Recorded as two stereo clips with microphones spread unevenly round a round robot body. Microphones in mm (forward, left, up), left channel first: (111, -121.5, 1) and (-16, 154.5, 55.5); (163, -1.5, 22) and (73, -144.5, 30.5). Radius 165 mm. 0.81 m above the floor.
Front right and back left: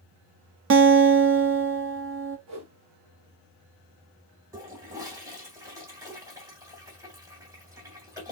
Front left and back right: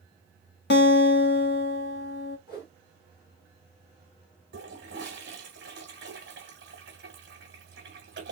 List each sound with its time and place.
0.7 s a guitar: 60° left, 0.7 m
2.5 s a whoosh: 80° left, 1.8 m
4.5 s a toilet flushing: 165° right, 1.1 m